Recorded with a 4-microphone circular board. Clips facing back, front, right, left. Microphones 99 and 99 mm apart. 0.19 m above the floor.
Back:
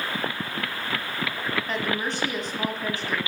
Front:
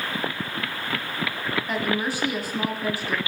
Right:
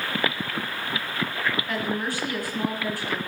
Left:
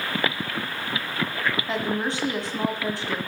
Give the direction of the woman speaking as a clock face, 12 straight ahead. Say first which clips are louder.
Front 2 dB, left 2 dB; 10 o'clock.